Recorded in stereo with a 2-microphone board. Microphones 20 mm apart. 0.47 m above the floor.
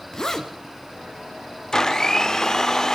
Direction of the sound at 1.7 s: 25° left (ahead or behind).